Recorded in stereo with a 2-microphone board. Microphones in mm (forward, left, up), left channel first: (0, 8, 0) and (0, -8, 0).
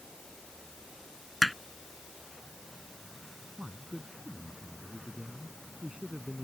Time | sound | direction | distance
1.4 | hammering | centre (ahead or behind) | ?
3.6 | a man speaking | 75° right (ahead or behind) | ?